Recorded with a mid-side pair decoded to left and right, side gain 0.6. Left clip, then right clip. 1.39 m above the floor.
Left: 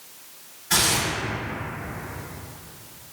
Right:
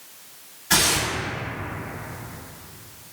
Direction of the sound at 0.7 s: 30° right.